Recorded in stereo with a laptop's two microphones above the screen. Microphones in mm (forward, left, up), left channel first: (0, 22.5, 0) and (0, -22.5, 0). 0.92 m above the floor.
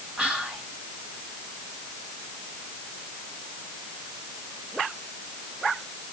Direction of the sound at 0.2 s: 20° right (ahead or behind).